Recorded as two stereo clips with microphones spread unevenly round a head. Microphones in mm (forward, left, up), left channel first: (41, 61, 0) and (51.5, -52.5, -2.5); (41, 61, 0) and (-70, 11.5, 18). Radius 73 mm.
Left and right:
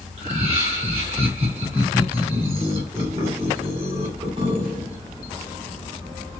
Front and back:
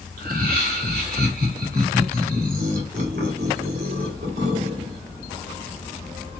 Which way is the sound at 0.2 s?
135° right.